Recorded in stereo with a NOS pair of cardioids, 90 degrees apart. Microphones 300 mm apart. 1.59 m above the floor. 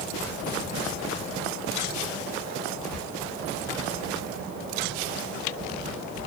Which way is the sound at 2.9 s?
65° left.